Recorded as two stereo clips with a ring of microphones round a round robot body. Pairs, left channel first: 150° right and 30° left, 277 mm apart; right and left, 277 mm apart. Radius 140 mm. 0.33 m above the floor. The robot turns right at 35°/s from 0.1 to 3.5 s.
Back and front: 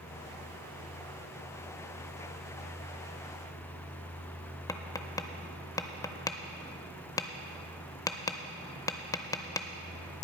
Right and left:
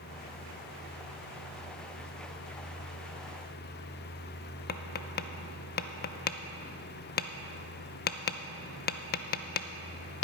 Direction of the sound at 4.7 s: 80° right.